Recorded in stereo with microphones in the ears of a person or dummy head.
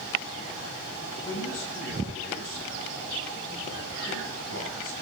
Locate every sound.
1.2 s a man speaking: 85° left, 10 m